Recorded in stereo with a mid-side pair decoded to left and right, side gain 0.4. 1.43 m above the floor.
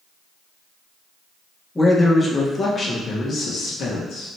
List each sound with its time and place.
1.8 s a man speaking: 15° left, 1.5 m; by 4.3 s 80° left, 1.6 m